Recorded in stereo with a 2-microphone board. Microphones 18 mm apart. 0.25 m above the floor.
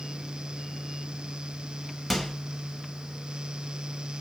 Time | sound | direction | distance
2.1 | a microwave | 10° left (ahead or behind) | 0.8 m